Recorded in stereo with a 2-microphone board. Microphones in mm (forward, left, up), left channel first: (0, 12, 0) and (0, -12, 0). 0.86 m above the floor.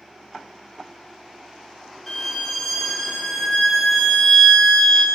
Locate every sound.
2.1 s a violin: 5° left (ahead or behind), 1.8 m